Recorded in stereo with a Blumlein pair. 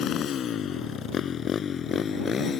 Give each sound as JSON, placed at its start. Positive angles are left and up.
{"t": 0.0, "sound": "a motorcycle", "azimuth_deg": 30}